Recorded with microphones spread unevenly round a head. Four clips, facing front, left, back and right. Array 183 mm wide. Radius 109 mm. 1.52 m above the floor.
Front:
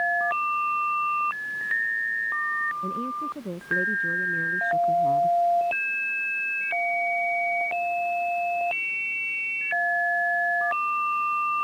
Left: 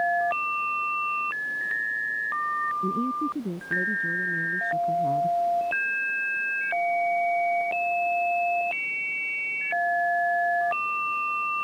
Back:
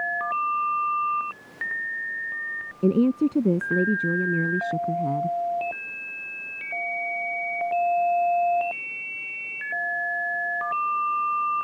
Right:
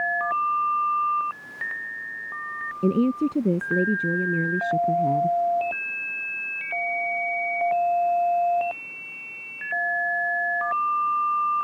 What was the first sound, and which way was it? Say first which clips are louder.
A woman speaking: right 5 dB, back 10 dB; 170° right.